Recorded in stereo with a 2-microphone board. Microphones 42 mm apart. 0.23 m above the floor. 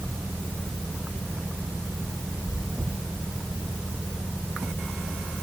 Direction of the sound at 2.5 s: 5° right (ahead or behind).